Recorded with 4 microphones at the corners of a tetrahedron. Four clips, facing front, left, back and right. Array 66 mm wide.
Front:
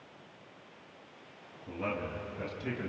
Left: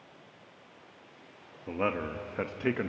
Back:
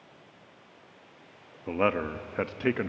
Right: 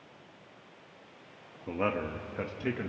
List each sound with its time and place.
1.7 s a man speaking: 175° right, 1.6 m; by 2.9 s 155° left, 1.2 m